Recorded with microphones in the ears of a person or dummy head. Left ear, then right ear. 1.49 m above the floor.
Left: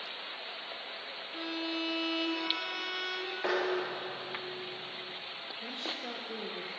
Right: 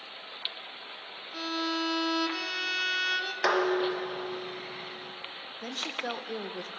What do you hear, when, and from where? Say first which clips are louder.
1.3 s a violin: right 5 dB; 30° right (ahead or behind), 1.1 m
3.4 s dishes clattering: right 6 dB; 70° right (ahead or behind), 1.1 m
5.6 s a woman speaking: right 5 dB; 45° right (ahead or behind), 0.7 m